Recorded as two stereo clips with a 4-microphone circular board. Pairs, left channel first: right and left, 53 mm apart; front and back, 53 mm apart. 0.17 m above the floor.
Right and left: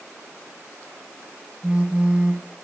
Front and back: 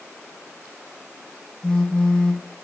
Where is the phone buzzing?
40° left, 0.9 m.